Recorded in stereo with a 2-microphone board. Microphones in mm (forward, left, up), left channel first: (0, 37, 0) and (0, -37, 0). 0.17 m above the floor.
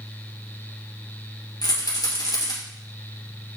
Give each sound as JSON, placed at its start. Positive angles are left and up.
{"t": 1.6, "sound": "a rattle", "side_deg": 65, "distance_m": 3.0}